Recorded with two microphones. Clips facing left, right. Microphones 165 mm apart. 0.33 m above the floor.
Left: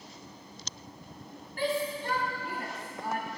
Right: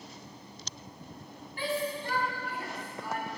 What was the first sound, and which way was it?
A shout, 50° left (ahead or behind).